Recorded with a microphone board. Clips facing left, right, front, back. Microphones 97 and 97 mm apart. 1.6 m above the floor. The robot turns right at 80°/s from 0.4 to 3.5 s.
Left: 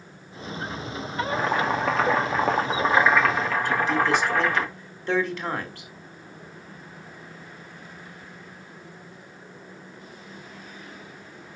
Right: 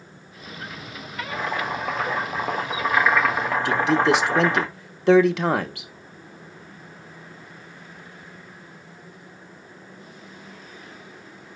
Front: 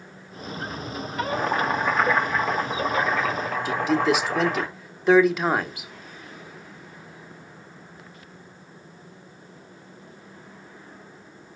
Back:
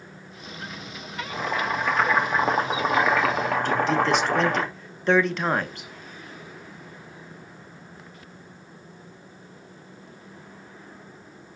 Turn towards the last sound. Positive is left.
turn(degrees=-85)